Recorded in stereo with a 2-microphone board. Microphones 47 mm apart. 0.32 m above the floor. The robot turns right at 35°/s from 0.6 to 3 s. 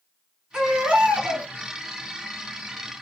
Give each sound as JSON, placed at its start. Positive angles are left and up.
{"t": 0.5, "sound": "a baby crying", "azimuth_deg": -165, "distance_m": 1.1}